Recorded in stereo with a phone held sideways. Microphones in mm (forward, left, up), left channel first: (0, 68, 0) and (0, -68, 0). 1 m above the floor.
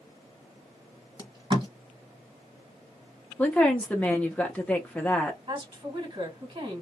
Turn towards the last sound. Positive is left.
turn(degrees=-45)  # may be behind; listen again after turning